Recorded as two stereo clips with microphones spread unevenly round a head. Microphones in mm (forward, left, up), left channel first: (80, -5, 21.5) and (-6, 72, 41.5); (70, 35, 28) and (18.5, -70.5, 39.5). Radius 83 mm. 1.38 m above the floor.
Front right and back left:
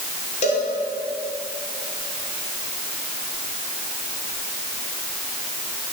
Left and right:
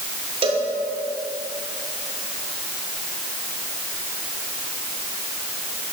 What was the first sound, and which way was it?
A cowbell, 75° right.